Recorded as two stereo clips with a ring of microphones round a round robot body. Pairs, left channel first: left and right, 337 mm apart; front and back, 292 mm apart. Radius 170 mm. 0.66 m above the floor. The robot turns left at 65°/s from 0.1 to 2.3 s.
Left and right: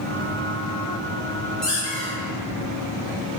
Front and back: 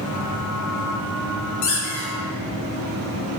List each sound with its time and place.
1.6 s a squeak: straight ahead, 0.6 m; by 2.1 s 35° right, 0.6 m